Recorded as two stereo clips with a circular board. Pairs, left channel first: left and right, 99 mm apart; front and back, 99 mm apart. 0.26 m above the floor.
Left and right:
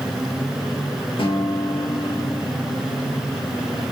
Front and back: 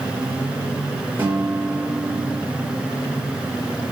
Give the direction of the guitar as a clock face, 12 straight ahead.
8 o'clock.